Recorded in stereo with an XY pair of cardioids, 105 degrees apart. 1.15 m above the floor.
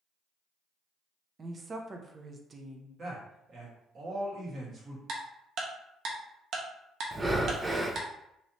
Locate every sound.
1.4 s a woman speaking: 30° right, 0.7 m
3.0 s a man speaking: 35° right, 1.8 m
5.1 s ticking: 60° right, 0.8 m
7.1 s breathing: 20° right, 0.5 m